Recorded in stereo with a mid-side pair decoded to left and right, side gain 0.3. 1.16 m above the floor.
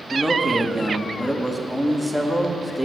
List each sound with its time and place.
0.1 s a man speaking: 5° right, 1.2 m